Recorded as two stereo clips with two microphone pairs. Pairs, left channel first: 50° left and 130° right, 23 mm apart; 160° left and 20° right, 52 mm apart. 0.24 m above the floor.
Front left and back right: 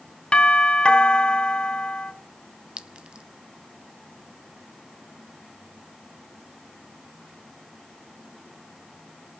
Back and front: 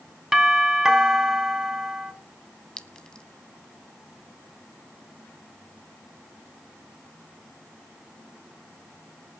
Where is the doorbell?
60° left, 2.5 m.